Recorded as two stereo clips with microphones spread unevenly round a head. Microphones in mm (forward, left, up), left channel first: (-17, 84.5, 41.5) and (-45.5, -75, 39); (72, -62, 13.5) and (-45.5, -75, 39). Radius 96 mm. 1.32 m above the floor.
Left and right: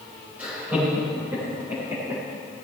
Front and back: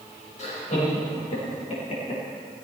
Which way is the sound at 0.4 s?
20° right.